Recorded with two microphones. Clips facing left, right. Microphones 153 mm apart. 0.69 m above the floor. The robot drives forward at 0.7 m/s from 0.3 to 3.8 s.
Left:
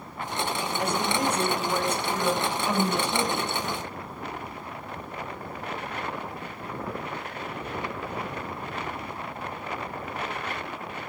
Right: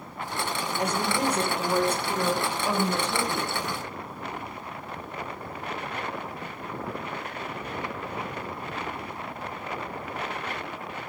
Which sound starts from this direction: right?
A woman speaking, at 0.8 s.